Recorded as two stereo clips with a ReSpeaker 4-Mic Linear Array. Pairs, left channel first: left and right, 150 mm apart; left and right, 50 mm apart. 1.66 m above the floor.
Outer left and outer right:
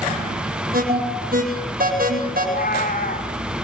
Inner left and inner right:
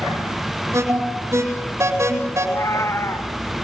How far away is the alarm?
About 8.5 m.